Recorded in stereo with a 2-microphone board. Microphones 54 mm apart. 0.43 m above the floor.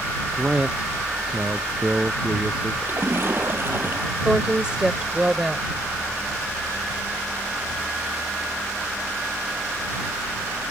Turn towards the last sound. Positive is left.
turn(degrees=-15)  # may be behind; listen again after turning